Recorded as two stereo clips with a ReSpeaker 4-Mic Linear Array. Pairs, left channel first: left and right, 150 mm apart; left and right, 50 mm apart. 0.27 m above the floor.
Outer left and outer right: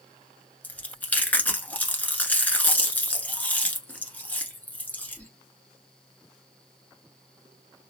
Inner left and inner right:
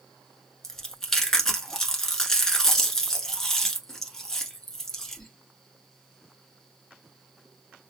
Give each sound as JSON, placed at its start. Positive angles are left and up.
{"t": 0.6, "sound": "chewing", "side_deg": 10, "distance_m": 1.0}